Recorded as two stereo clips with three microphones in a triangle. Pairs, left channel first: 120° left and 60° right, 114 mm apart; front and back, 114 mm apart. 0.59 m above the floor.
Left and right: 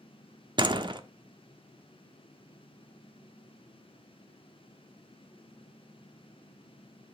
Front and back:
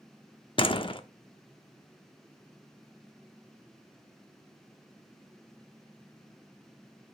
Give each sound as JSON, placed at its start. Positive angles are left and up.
{"t": 0.6, "sound": "a door slam", "azimuth_deg": -25, "distance_m": 0.9}